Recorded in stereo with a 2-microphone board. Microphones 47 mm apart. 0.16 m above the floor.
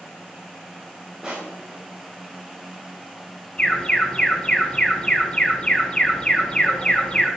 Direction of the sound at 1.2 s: 15° right (ahead or behind).